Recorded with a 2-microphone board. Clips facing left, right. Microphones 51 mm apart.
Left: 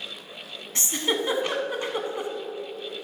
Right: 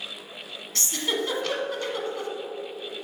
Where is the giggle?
20° left (ahead or behind), 0.8 m.